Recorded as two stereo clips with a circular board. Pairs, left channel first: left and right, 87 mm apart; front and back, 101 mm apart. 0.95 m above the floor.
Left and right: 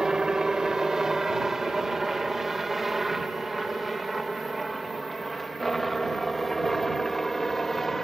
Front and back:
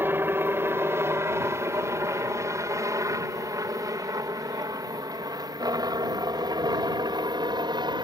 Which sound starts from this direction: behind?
A helicopter, at 0.0 s.